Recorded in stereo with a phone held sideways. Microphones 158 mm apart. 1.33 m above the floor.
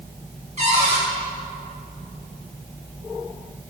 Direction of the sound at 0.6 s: 45° right (ahead or behind).